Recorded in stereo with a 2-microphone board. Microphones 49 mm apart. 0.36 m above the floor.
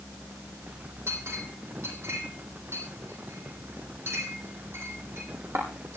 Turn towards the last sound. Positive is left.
turn(degrees=-60)  # may be behind; listen again after turning